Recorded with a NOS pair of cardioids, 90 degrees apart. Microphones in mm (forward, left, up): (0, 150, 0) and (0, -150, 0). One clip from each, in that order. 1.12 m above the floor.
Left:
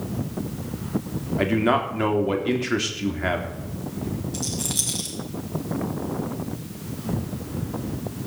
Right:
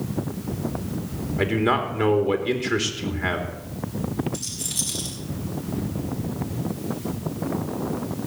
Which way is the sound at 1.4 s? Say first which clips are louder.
Left 1 dB; 10° left.